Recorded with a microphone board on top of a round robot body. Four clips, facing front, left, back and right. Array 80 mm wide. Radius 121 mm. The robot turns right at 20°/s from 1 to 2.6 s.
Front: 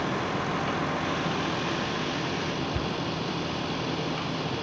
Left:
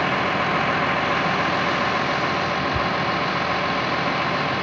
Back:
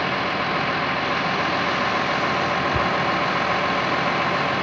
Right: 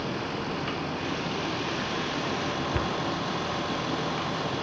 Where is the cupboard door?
165° right.